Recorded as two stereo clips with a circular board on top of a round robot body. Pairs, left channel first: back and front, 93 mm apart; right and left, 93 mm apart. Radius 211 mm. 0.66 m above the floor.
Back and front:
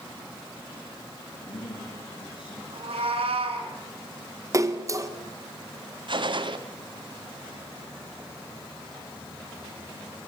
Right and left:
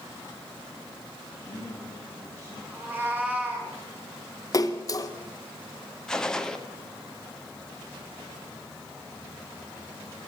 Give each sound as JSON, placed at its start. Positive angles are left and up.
{"t": 1.3, "sound": "a man speaking", "azimuth_deg": -150, "distance_m": 6.5}
{"t": 2.7, "sound": "a cat meowing", "azimuth_deg": 15, "distance_m": 4.0}
{"t": 4.5, "sound": "a splash", "azimuth_deg": -45, "distance_m": 1.8}
{"t": 6.1, "sound": "a gunshot", "azimuth_deg": -10, "distance_m": 1.6}